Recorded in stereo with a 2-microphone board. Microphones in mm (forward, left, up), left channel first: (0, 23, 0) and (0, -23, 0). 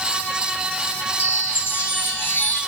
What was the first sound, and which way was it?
A chime, 60° left (ahead or behind).